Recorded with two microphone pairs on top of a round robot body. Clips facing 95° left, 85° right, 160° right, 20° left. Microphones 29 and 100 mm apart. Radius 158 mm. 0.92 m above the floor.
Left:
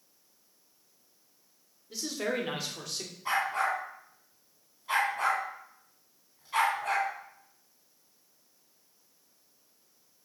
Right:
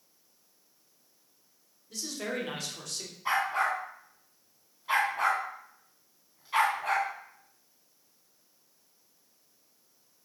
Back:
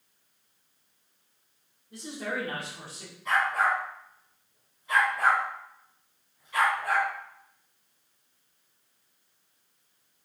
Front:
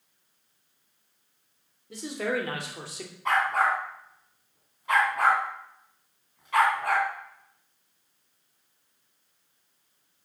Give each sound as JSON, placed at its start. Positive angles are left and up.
{"t": 1.9, "sound": "a man speaking", "azimuth_deg": 20, "distance_m": 3.5}
{"t": 3.2, "sound": "a dog barking", "azimuth_deg": -10, "distance_m": 3.0}